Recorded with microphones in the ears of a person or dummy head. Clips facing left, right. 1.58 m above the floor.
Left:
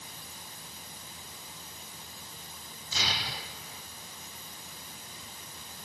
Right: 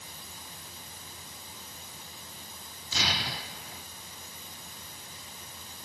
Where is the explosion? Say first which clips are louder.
Right 3 dB; 55° right (ahead or behind), 0.7 m.